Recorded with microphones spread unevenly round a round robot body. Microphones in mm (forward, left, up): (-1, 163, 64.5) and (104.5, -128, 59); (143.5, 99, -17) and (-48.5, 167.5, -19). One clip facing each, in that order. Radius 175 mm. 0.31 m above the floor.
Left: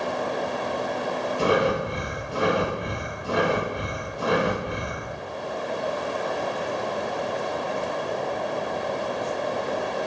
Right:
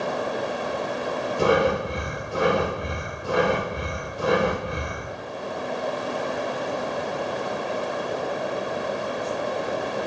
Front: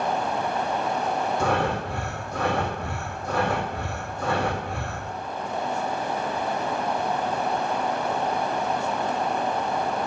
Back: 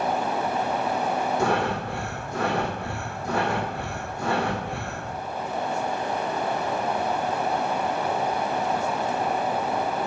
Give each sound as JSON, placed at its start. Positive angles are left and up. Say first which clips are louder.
{"t": 1.4, "sound": "breathing", "louder": "right 2 dB, even", "azimuth_deg": -120, "distance_m": 2.0}